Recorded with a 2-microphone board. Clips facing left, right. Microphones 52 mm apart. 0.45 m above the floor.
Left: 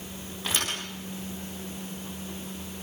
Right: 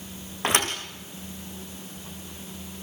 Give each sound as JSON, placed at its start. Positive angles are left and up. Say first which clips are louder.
{"t": 0.4, "sound": "a thud", "louder": "right 6 dB", "side_deg": -60, "distance_m": 5.0}